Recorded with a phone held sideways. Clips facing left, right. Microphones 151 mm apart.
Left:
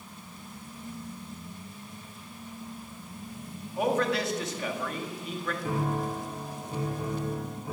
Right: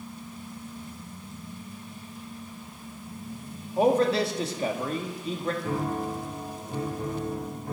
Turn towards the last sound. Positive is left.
turn(degrees=5)  # may be behind; listen again after turning